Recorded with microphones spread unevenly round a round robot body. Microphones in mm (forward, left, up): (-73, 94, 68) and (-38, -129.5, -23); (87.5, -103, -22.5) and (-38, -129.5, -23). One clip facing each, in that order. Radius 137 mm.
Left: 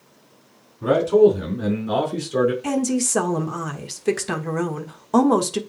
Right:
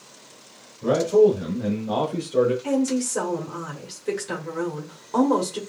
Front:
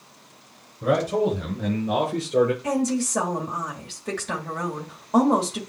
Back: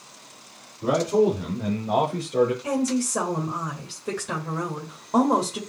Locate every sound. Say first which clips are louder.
0.8 s a man speaking: left 2 dB, back 1 dB; 85° left, 4.5 m
2.6 s a woman speaking: even, even; 110° left, 1.3 m